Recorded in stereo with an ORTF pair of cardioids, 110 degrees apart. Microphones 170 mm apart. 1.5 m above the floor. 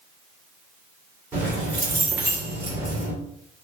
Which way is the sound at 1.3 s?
15° right.